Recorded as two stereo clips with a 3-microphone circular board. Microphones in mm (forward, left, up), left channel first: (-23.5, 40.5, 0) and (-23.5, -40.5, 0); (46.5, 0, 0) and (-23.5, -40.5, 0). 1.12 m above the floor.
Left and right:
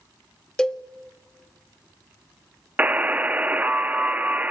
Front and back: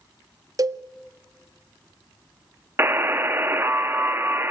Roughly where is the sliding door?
I don't hear a sliding door.